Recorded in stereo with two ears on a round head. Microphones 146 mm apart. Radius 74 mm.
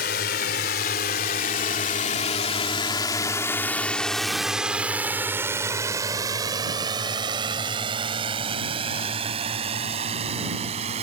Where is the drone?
65° left (ahead or behind); by 11.0 s 40° right (ahead or behind).